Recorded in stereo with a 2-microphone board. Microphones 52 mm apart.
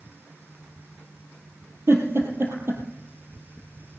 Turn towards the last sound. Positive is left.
turn(degrees=-50)  # may be behind; listen again after turning